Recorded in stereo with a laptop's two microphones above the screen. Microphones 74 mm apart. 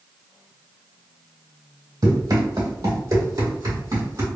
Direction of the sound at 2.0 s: 60° right (ahead or behind).